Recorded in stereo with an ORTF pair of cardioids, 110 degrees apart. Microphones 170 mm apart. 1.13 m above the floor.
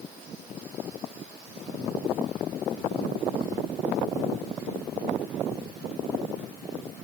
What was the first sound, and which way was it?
Only background noise.